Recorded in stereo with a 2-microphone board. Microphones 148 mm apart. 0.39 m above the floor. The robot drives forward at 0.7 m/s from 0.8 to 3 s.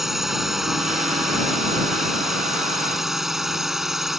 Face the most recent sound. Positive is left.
turn(degrees=0)  # may be behind; listen again after turning